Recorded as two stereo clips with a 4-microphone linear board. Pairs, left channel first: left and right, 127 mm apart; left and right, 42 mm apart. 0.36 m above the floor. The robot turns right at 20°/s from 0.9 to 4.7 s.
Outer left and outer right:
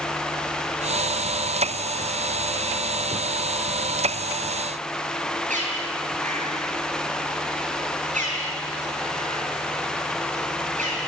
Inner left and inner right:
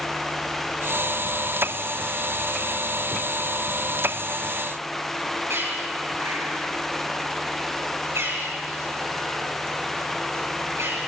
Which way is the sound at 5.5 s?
80° right.